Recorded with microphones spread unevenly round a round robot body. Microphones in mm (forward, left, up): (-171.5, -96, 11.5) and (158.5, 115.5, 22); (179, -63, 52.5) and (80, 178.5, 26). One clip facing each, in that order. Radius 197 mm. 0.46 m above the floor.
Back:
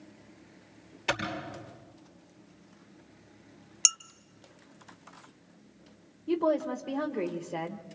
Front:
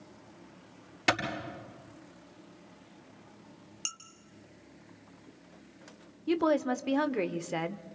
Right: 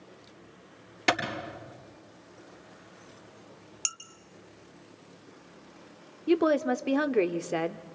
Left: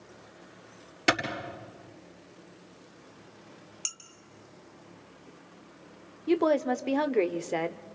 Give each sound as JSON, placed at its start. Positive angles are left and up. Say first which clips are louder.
{"t": 1.1, "sound": "a clap", "louder": "front 3 dB, left 1 dB", "azimuth_deg": 40, "distance_m": 8.0}
{"t": 3.9, "sound": "dishes clattering", "louder": "back 2 dB, right 1 dB", "azimuth_deg": -150, "distance_m": 0.6}
{"t": 6.3, "sound": "a woman speaking", "louder": "front 1 dB, right 1 dB", "azimuth_deg": 15, "distance_m": 1.1}